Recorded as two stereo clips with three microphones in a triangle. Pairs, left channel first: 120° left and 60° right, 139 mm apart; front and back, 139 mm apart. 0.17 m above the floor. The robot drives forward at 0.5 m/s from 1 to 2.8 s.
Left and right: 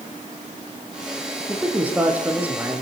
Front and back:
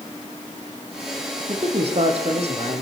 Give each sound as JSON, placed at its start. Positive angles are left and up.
{"t": 1.5, "sound": "a man speaking", "azimuth_deg": -135, "distance_m": 5.5}